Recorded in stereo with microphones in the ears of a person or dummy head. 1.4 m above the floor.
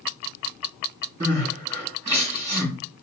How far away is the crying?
About 5.5 m.